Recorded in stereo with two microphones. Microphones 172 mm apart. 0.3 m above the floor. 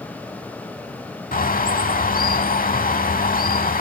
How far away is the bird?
About 0.6 m.